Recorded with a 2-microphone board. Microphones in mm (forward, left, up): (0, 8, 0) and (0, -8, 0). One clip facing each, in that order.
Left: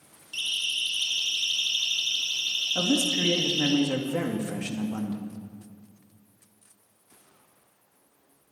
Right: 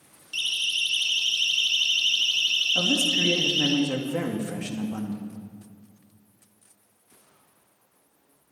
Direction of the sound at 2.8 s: 35° left (ahead or behind).